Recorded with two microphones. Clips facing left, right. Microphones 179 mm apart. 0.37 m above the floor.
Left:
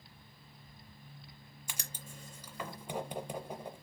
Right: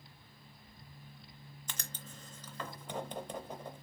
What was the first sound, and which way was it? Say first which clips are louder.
Writing: even; 10° left (ahead or behind).